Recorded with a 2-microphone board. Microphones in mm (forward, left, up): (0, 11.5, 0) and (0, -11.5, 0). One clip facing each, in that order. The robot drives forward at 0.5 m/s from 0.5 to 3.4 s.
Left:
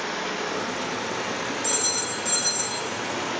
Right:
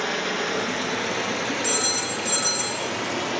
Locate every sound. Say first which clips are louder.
0.0 s running water: right 3 dB; 35° right (ahead or behind), 2 m; by 3.4 s 25° right (ahead or behind), 3.5 m
1.6 s a phone ringing: right 1 dB; 15° right (ahead or behind), 1.6 m; by 2.9 s 10° right (ahead or behind), 2 m